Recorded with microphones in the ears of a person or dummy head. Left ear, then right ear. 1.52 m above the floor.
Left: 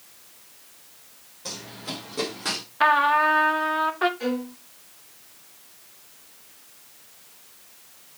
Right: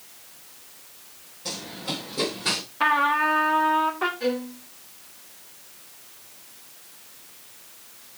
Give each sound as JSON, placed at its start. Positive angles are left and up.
{"t": 1.4, "sound": "running footsteps", "side_deg": 35, "distance_m": 4.0}
{"t": 2.8, "sound": "a trumpet", "side_deg": 25, "distance_m": 0.8}
{"t": 4.2, "sound": "a violin", "side_deg": 70, "distance_m": 3.0}